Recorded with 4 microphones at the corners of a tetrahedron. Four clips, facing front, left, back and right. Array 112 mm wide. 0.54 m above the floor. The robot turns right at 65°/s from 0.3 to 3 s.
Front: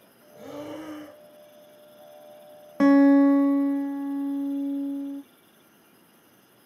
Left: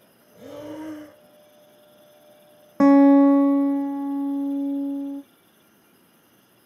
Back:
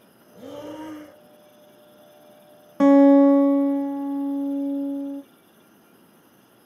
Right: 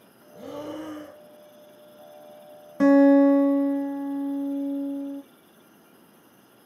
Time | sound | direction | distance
0.3 | breathing | 130° right | 1.9 m
2.8 | a guitar | 100° left | 0.5 m